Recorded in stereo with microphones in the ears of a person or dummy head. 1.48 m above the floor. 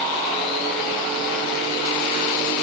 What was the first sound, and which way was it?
Only background noise.